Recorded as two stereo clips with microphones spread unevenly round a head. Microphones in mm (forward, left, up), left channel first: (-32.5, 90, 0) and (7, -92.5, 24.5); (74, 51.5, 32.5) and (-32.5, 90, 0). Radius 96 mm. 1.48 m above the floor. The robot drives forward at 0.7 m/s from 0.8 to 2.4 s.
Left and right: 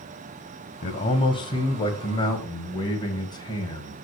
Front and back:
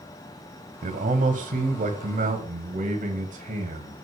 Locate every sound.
0.8 s a man speaking: 150° left, 0.9 m; by 4.0 s 165° left, 1.9 m